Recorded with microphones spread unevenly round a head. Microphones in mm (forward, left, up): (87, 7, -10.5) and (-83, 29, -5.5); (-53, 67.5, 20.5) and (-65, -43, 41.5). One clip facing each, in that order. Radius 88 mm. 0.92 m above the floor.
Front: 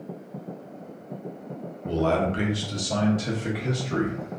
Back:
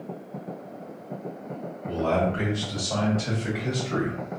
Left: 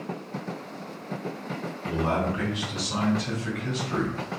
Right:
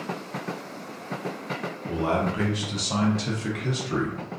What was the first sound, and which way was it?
A man speaking, 5° left.